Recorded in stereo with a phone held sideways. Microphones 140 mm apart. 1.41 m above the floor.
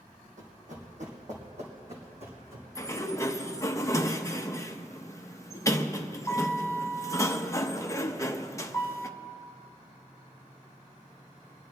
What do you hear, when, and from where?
0.4 s running footsteps: 60° right (ahead or behind), 2.5 m; by 2.6 s 45° right (ahead or behind), 4 m
2.8 s a sliding door: 20° left (ahead or behind), 0.7 m